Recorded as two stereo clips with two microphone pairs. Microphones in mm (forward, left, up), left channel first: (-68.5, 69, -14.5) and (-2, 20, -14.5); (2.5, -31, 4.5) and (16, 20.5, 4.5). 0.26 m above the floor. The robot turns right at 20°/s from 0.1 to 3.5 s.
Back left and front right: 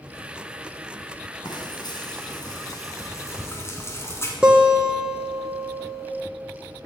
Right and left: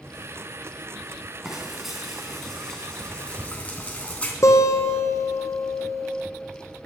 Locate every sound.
1.4 s frying: 155° left, 3 m; by 4.3 s 165° right, 3 m
4.4 s a guitar: 115° right, 2.0 m